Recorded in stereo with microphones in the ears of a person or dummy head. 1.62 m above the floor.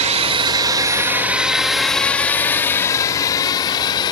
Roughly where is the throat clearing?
I don't hear throat clearing.